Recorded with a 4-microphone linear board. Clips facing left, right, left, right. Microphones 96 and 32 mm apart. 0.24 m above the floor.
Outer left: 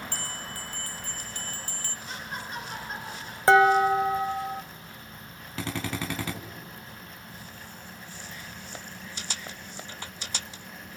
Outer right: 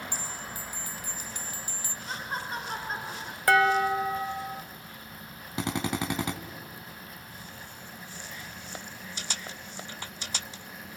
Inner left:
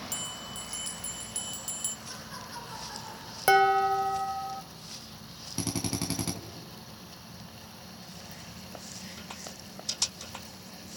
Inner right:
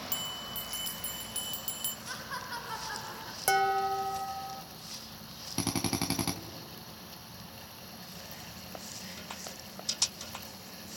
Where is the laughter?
40° right (ahead or behind), 2.5 m.